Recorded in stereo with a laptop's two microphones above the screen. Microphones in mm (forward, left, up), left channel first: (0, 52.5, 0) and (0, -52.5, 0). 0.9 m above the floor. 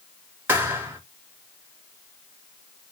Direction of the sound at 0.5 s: 20° right (ahead or behind).